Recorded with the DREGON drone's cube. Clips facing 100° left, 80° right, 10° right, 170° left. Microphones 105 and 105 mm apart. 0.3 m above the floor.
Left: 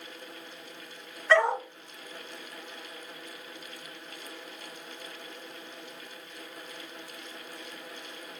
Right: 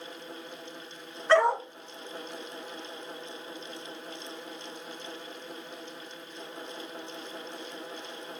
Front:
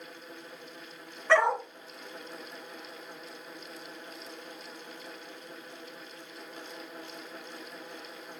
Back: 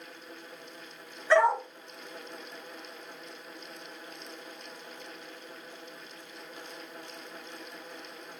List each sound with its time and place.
1.3 s a dog barking: 15° right, 1.5 m